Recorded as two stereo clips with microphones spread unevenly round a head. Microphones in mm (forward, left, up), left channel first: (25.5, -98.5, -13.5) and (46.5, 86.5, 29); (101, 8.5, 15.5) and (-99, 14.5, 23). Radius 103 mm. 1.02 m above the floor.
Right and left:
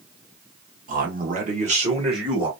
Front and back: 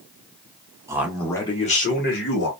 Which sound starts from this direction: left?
A man speaking, at 0.9 s.